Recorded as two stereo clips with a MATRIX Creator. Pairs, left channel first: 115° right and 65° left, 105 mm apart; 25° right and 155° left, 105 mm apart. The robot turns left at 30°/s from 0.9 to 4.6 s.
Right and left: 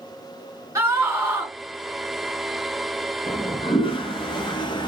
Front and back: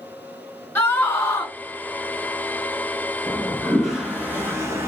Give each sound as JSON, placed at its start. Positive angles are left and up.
{"t": 0.8, "sound": "a scream", "azimuth_deg": 30, "distance_m": 2.0}
{"t": 3.3, "sound": "a toilet flushing", "azimuth_deg": -100, "distance_m": 0.7}